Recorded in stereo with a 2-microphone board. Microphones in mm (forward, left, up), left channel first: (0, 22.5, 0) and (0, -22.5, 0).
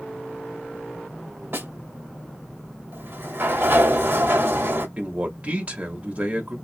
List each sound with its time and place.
1.5 s a snare drum: 55° right (ahead or behind), 1.3 m
2.9 s a sliding door: 55° right (ahead or behind), 1.0 m
5.0 s a man speaking: 30° right (ahead or behind), 1.2 m